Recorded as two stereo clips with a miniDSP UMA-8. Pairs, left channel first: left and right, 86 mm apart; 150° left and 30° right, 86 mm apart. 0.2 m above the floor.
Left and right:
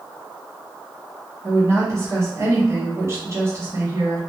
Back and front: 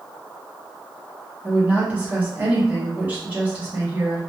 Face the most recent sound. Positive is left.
turn(degrees=-85)